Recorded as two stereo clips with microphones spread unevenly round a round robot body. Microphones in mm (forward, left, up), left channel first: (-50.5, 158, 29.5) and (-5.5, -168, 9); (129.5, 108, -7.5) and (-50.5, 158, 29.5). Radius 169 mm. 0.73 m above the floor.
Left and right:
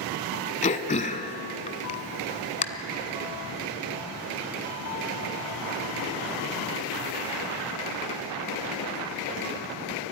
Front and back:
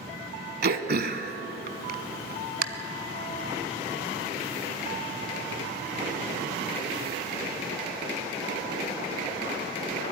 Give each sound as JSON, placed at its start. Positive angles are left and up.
{"t": 0.6, "sound": "throat clearing", "azimuth_deg": 165, "distance_m": 1.1}